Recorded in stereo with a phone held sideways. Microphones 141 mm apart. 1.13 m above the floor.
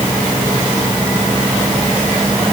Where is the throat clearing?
I don't hear throat clearing.